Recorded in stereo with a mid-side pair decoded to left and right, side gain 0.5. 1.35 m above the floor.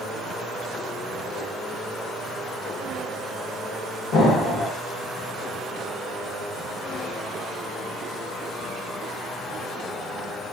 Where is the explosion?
70° left, 1.6 m.